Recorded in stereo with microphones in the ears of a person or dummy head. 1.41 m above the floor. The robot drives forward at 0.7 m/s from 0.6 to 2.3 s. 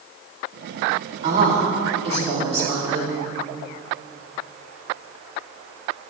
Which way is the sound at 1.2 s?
40° right (ahead or behind).